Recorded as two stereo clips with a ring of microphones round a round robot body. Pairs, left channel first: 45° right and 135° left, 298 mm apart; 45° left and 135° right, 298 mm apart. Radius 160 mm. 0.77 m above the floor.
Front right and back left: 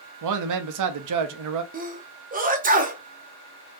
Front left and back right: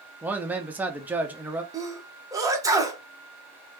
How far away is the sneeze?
About 0.9 m.